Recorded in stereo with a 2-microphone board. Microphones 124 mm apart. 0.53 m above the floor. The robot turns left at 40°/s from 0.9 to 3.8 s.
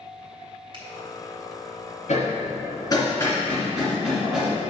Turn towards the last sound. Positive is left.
turn(degrees=-5)